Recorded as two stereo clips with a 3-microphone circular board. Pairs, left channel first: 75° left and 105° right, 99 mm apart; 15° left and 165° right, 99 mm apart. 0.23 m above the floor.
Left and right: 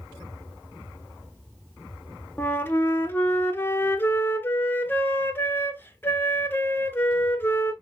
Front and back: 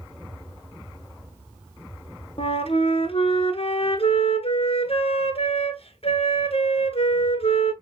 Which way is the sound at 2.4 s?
5° left.